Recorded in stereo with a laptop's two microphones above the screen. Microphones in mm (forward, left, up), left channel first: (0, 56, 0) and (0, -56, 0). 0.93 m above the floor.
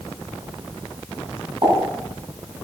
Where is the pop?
45° right (ahead or behind), 8.5 m.